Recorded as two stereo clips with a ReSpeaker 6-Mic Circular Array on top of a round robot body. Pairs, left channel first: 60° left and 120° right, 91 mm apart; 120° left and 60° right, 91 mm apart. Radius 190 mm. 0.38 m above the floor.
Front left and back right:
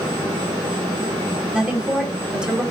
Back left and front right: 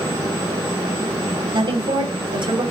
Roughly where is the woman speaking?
Ahead right.